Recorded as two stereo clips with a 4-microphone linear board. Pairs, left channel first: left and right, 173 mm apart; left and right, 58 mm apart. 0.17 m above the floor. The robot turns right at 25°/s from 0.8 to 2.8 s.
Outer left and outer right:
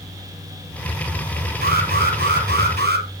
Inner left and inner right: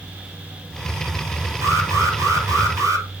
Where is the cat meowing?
No cat meowing in this recording.